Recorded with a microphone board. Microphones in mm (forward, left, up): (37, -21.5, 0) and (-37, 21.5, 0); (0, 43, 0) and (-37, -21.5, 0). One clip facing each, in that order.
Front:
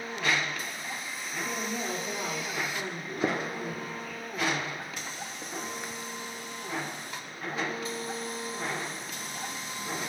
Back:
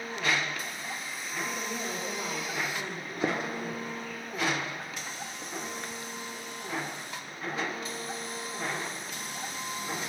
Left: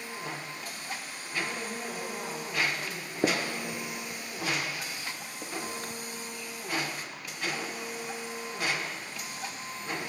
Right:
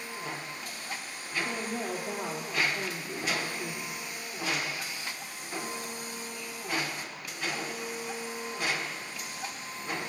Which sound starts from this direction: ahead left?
A gunshot, at 3.2 s.